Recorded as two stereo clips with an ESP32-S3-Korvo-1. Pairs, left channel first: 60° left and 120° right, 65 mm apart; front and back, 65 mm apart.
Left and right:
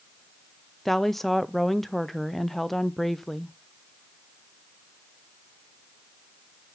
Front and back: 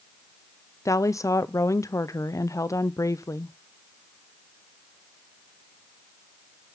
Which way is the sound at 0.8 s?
25° right.